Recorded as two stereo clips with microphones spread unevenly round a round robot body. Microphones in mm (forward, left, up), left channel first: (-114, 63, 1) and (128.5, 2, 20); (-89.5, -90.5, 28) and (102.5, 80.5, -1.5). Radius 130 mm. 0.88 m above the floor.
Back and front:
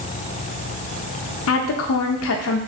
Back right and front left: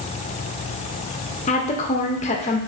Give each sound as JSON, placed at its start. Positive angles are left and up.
{"t": 1.5, "sound": "a woman speaking", "azimuth_deg": 155, "distance_m": 0.6}